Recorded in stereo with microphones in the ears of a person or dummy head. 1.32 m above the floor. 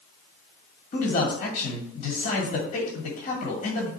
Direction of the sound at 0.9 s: 40° left (ahead or behind).